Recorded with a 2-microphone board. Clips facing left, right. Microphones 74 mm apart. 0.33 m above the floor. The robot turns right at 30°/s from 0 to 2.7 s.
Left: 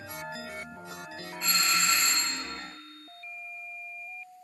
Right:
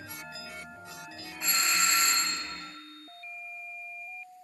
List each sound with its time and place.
1.4 s a doorbell: 165° right, 3.5 m; by 2.4 s 135° right, 3.5 m